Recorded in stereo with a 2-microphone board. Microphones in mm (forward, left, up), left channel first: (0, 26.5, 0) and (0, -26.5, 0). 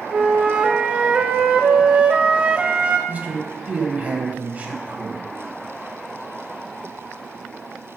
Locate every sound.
0.1 s a flute: 20° right (ahead or behind), 0.5 m
3.1 s a man speaking: 30° right (ahead or behind), 1.1 m